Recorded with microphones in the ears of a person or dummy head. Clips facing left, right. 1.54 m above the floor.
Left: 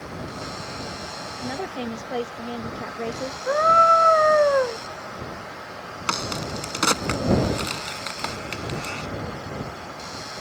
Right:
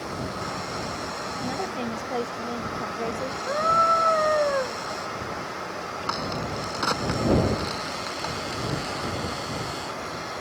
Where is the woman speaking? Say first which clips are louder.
Left 1 dB; 10° left (ahead or behind).